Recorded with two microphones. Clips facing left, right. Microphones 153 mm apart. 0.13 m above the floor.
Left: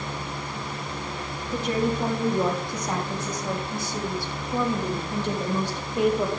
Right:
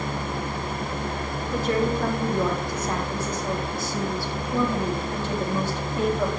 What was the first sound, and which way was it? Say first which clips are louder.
A woman speaking: right 1 dB; 20° left (ahead or behind).